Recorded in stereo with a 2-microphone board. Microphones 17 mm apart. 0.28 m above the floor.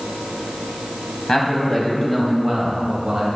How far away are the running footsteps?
I don't hear running footsteps.